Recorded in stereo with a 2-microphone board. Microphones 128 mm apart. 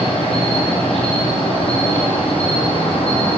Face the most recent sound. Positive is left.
turn(degrees=50)  # may be behind; listen again after turning